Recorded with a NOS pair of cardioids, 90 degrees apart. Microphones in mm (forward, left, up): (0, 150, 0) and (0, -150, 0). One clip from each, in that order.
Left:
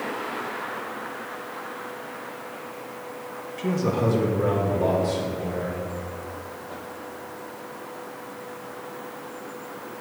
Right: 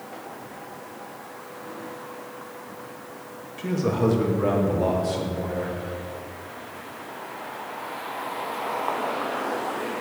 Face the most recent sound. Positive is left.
turn(degrees=-35)